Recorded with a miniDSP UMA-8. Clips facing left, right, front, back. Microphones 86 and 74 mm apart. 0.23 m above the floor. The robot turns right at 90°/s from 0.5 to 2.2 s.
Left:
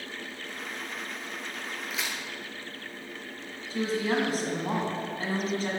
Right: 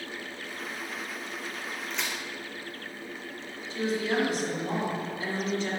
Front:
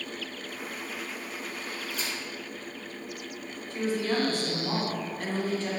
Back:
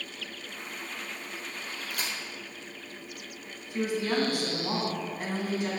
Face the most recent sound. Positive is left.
turn(degrees=110)